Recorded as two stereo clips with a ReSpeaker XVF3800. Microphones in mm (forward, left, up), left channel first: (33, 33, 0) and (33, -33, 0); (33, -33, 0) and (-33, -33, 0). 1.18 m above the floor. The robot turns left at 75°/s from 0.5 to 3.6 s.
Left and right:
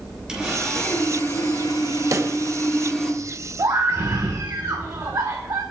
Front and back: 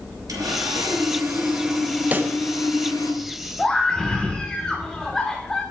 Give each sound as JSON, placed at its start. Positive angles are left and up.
{"t": 0.3, "sound": "sawing", "azimuth_deg": -170, "distance_m": 3.0}
{"t": 2.1, "sound": "a pop", "azimuth_deg": -120, "distance_m": 0.8}
{"t": 3.6, "sound": "a scream", "azimuth_deg": -80, "distance_m": 1.1}